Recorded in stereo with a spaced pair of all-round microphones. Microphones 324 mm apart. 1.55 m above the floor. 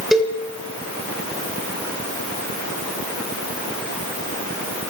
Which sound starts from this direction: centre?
A cowbell, at 0.1 s.